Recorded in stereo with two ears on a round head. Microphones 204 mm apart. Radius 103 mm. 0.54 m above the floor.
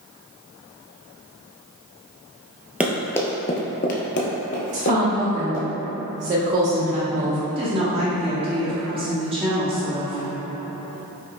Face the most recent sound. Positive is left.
turn(degrees=-25)  # may be behind; listen again after turning